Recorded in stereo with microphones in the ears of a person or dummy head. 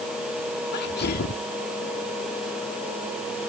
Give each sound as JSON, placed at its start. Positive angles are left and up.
{"t": 0.7, "sound": "a sneeze", "side_deg": 60}